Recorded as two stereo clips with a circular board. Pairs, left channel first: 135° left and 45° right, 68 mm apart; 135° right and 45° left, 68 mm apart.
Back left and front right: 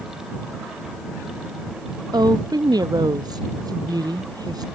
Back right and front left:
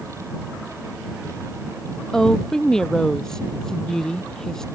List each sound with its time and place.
2.1 s a woman speaking: 55° right